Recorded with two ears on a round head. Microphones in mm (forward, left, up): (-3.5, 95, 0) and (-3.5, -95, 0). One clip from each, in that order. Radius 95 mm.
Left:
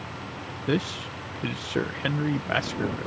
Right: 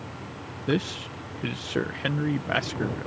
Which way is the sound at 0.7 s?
Centre (ahead or behind).